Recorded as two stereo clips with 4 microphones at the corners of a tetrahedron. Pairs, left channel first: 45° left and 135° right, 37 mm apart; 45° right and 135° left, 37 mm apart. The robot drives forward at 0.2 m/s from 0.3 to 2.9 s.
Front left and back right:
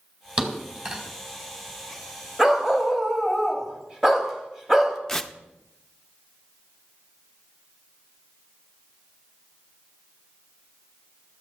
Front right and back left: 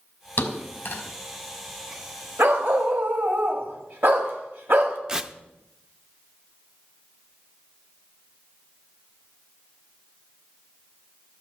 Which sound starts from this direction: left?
Tearing paper, at 5.1 s.